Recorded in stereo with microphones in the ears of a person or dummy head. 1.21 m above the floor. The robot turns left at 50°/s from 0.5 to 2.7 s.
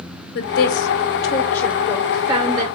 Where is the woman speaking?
65° left (ahead or behind), 0.8 m; by 2.6 s 25° right (ahead or behind), 0.8 m.